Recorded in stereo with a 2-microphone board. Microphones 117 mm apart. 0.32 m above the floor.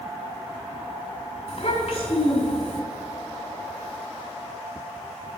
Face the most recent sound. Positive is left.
turn(degrees=55)  # may be behind; listen again after turning